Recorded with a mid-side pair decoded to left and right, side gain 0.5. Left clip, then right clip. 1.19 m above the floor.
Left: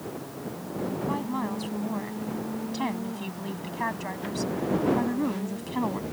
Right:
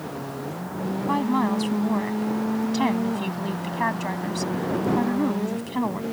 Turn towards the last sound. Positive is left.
turn(degrees=-15)